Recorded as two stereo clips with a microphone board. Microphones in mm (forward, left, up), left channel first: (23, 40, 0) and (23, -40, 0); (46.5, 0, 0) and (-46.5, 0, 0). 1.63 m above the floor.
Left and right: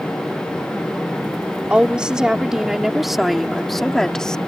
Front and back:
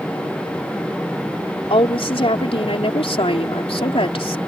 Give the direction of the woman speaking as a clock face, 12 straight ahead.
12 o'clock.